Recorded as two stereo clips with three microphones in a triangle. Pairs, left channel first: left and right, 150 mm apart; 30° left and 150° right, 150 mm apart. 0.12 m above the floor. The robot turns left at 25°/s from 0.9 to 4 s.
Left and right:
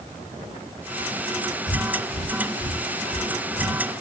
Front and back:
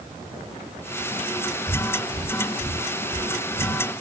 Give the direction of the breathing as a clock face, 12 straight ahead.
8 o'clock.